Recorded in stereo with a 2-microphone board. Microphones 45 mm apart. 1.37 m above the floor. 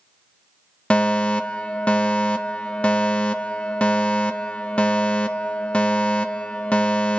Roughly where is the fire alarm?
Left.